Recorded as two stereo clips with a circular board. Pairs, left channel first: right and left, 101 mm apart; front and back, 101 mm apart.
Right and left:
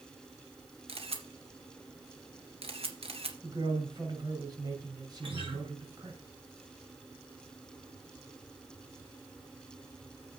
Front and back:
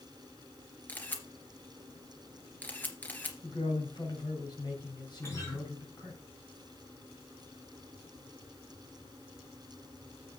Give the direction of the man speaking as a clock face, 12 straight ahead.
11 o'clock.